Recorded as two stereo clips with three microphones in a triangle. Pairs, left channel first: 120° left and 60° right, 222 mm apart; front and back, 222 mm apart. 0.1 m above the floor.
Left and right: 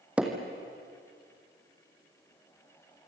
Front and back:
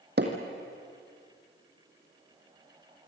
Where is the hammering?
145° right, 3 m.